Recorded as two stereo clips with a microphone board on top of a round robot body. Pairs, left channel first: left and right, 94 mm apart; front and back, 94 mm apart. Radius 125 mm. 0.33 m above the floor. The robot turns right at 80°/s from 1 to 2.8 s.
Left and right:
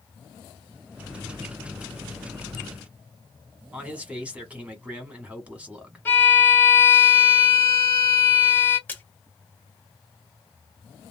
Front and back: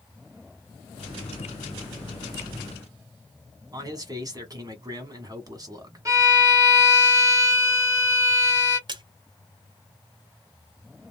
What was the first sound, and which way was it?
A man speaking, 160° right.